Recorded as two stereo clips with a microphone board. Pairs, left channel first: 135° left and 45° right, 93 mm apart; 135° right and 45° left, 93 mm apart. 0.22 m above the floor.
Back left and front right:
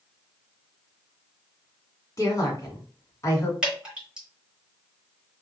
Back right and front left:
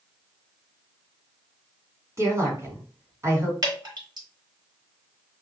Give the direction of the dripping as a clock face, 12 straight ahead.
11 o'clock.